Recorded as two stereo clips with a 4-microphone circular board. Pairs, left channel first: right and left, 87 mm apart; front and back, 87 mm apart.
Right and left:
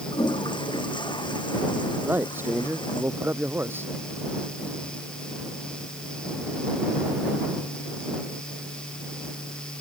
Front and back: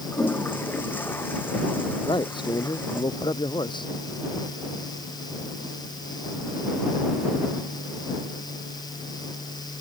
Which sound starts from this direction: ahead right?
A toilet flushing, at 0.1 s.